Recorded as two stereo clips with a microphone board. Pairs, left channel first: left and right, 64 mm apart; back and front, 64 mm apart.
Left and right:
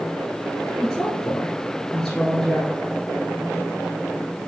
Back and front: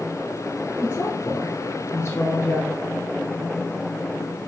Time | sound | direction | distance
0.8 | a woman speaking | 170° left | 1.5 m